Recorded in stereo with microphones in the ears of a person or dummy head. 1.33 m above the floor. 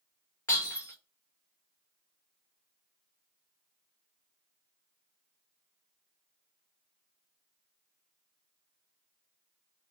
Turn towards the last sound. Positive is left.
turn(degrees=20)  # may be behind; listen again after turning